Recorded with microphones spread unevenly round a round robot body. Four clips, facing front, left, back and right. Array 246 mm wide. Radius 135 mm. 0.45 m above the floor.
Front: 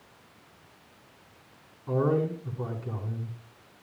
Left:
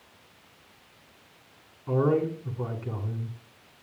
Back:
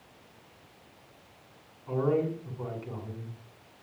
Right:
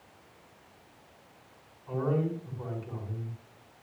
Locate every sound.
1.9 s a man speaking: 65° left, 7 m